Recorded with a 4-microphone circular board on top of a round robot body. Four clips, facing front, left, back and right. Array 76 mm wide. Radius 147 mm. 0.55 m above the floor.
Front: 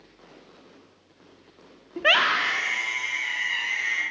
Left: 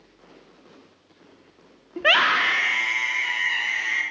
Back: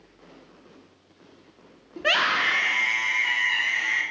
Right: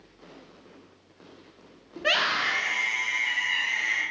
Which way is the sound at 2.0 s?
50° left.